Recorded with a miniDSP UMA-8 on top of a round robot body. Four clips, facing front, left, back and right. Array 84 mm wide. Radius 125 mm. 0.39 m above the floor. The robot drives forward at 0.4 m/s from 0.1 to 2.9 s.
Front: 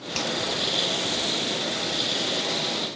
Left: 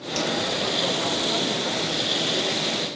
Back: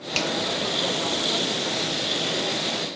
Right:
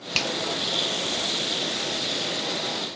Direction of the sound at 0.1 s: 110° right.